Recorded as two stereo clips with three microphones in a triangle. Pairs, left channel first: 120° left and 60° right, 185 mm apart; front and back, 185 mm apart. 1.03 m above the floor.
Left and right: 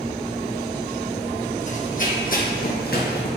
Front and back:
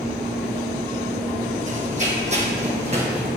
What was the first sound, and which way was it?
Running footsteps, 150° left.